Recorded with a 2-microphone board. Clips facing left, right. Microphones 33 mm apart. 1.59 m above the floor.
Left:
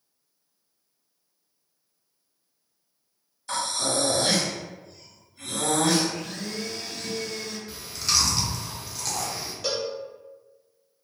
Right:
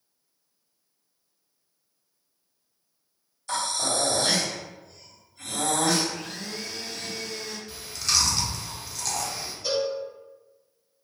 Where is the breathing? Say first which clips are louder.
Even; 10° left (ahead or behind), 1.7 m.